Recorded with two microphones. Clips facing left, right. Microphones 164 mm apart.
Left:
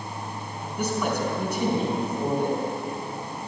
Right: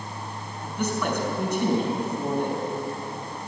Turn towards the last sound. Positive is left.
turn(degrees=10)  # may be behind; listen again after turning